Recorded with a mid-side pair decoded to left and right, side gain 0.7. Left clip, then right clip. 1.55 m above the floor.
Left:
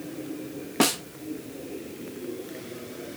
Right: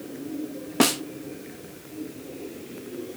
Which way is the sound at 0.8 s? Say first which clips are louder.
Right 2 dB; 10° right.